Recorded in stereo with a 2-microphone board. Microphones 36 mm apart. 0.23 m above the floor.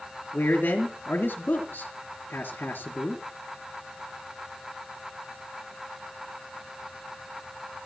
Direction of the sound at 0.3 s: 65° left (ahead or behind).